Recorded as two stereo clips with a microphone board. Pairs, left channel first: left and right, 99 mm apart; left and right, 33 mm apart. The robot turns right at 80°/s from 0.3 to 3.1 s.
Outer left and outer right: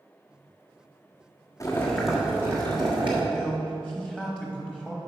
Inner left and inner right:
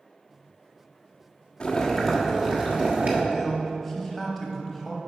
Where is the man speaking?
10° right (ahead or behind), 1.1 m.